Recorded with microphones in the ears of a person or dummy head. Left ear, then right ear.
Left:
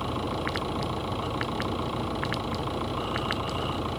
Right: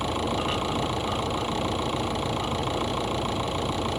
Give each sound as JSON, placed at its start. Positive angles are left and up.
{"t": 0.0, "sound": "an engine running", "side_deg": -15}